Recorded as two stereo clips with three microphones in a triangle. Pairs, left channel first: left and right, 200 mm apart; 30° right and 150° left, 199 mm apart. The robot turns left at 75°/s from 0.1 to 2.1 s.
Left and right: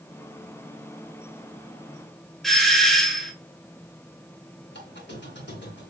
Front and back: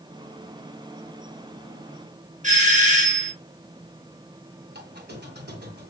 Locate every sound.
2.4 s a doorbell: straight behind, 1.3 m
4.7 s a squeak: 115° left, 1.9 m